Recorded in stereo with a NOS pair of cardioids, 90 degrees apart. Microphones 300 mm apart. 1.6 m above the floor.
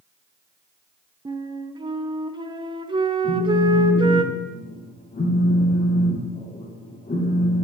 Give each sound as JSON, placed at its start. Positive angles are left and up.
{"t": 1.2, "sound": "a flute", "azimuth_deg": -15, "distance_m": 1.1}
{"t": 3.2, "sound": "a phone buzzing", "azimuth_deg": 25, "distance_m": 4.0}